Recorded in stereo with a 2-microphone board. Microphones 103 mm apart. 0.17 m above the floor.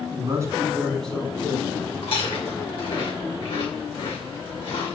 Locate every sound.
0.1 s a man speaking: 40° right (ahead or behind), 1.8 m; by 1.9 s 45° left (ahead or behind), 1.9 m
2.0 s chewing: 60° left (ahead or behind), 3 m